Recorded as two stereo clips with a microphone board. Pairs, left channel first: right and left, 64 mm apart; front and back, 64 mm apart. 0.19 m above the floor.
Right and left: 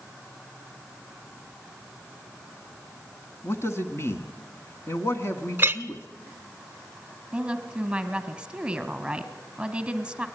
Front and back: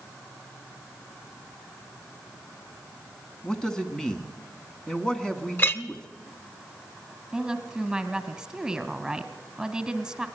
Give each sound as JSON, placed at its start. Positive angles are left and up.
{"t": 3.4, "sound": "a man speaking", "azimuth_deg": -75, "distance_m": 1.5}
{"t": 5.6, "sound": "a clink", "azimuth_deg": 40, "distance_m": 1.0}
{"t": 7.3, "sound": "a woman speaking", "azimuth_deg": 125, "distance_m": 1.3}